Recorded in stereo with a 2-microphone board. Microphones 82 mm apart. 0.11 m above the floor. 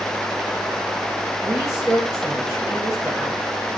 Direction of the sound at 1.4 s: 5° right (ahead or behind).